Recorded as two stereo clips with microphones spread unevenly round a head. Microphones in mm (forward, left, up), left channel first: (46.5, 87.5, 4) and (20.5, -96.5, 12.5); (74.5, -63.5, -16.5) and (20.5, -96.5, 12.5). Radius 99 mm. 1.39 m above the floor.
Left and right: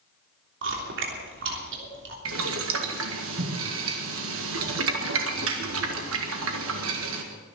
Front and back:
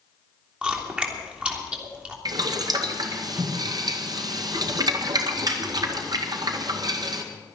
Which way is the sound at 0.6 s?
80° right.